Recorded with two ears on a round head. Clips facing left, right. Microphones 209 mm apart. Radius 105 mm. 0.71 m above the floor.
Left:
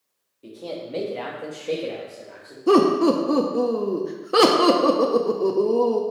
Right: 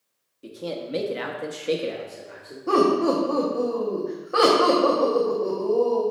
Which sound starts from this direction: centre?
A man speaking, at 0.4 s.